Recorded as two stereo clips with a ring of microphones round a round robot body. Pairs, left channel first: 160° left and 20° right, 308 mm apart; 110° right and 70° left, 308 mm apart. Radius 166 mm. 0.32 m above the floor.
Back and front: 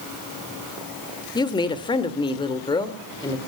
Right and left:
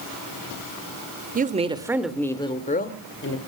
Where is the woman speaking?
95° left, 1.6 m; by 3.4 s 130° right, 1.9 m.